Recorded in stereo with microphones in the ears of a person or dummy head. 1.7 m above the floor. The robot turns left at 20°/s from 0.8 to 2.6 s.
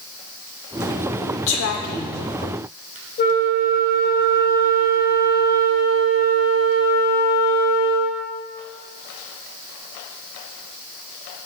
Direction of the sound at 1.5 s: 65° left (ahead or behind).